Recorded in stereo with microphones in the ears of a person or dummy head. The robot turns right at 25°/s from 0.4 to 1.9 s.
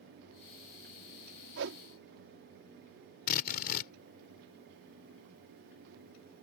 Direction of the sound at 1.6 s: 70° right (ahead or behind).